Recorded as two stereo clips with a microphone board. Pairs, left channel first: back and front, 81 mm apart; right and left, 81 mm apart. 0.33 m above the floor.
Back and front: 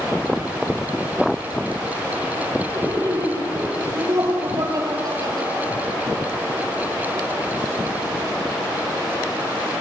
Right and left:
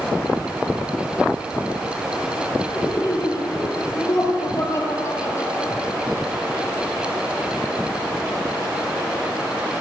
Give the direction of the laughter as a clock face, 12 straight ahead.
1 o'clock.